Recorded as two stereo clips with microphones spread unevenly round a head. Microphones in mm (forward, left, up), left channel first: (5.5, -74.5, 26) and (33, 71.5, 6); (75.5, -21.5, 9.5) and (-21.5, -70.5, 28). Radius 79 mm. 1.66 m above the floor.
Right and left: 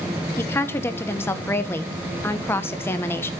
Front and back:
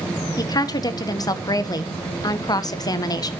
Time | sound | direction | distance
0.4 | a woman speaking | 25° right | 1.3 m